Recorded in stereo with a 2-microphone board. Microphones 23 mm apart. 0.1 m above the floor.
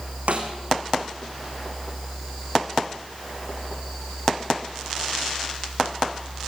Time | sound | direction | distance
0.3 | a snare drum | 75° right (ahead or behind) | 4 m